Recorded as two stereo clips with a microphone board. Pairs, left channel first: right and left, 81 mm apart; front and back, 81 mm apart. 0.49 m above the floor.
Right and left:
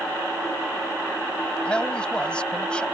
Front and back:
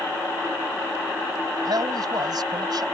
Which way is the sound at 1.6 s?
165° right.